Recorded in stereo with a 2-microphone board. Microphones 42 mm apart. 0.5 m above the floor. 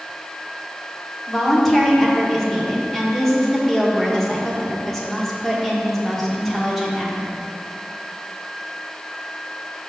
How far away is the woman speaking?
About 1.3 m.